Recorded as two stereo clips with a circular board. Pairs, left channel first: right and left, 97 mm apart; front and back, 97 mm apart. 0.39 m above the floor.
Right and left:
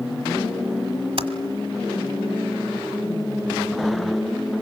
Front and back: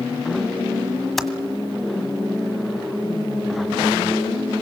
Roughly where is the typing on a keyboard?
Left.